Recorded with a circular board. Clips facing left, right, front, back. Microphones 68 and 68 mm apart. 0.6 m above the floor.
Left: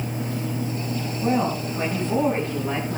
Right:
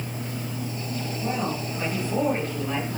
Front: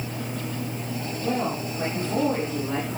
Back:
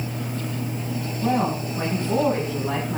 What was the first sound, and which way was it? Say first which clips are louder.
A woman speaking: left 6 dB, back 4 dB; 150° left.